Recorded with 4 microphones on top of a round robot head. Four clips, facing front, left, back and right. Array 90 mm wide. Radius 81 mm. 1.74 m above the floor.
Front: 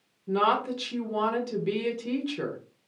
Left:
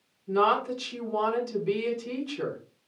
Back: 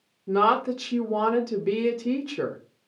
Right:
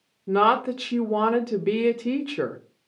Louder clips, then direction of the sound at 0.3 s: Right 4 dB, back 3 dB; 120° right.